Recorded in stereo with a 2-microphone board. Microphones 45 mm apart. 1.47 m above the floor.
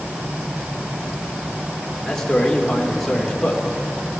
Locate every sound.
2.0 s a man speaking: 15° left (ahead or behind), 5 m